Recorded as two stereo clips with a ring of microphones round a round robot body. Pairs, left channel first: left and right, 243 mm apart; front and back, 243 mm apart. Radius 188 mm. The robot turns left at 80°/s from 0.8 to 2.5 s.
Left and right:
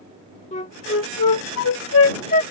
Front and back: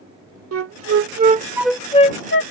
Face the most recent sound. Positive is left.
turn(degrees=25)